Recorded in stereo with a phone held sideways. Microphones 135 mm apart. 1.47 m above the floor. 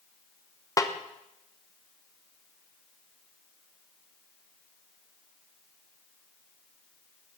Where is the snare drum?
25° left (ahead or behind), 0.9 m.